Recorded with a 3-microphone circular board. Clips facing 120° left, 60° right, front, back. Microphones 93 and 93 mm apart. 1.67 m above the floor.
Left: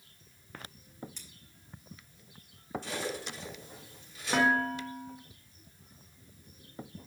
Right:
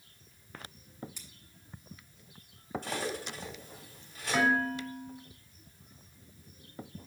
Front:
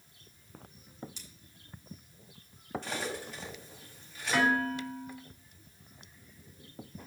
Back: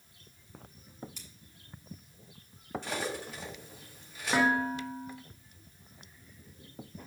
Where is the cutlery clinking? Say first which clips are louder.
Right 1 dB, back 3 dB; 100° right, 3.5 m.